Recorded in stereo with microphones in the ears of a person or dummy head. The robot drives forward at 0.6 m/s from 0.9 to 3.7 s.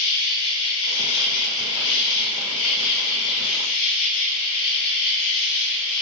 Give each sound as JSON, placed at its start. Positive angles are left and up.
{"t": 0.0, "sound": "an insect", "side_deg": 80, "distance_m": 4.5}